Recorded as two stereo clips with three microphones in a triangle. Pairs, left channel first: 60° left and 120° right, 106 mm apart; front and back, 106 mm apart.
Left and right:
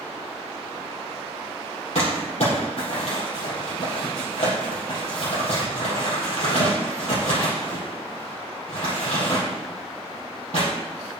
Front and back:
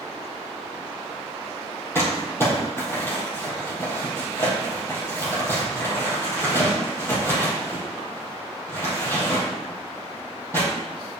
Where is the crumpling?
70° left, 4.5 m.